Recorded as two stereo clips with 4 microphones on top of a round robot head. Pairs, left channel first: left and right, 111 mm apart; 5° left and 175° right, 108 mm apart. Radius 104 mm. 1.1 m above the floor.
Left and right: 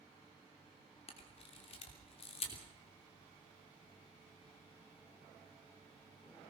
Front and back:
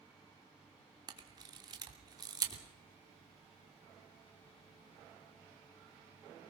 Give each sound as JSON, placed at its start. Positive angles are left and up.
{"t": 1.1, "sound": "a camera shutter", "azimuth_deg": 130, "distance_m": 3.0}